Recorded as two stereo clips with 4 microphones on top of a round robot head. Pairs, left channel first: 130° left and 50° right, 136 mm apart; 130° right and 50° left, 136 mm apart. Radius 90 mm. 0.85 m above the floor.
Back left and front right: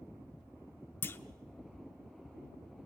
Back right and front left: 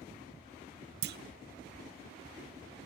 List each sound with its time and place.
1.0 s a clunk: 55° left, 0.7 m